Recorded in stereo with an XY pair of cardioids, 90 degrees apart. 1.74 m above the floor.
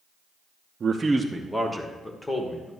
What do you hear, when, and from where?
0.8 s a man speaking: 50° right, 0.7 m; by 2.7 s 30° left, 2.5 m